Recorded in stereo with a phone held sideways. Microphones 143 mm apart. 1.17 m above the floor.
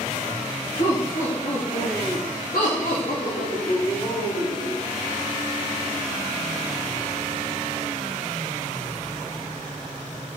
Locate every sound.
0.8 s laughter: 55° left (ahead or behind), 3 m